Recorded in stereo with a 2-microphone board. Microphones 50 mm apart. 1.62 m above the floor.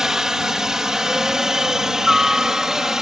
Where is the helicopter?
10° right (ahead or behind).